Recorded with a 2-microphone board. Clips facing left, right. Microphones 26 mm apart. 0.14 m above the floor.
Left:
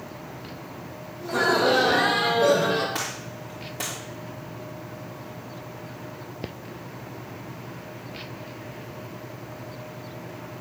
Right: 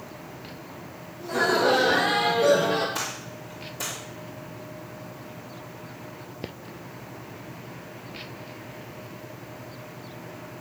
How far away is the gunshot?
About 3 m.